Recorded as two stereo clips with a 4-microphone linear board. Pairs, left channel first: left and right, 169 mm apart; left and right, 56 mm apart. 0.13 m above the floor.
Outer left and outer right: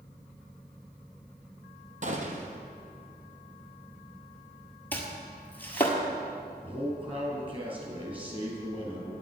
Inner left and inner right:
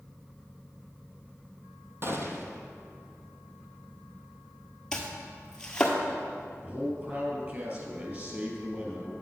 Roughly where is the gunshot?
Right.